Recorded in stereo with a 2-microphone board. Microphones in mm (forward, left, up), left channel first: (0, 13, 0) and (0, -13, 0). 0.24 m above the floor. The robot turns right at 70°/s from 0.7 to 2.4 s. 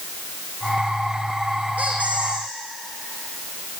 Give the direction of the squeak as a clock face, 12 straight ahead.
3 o'clock.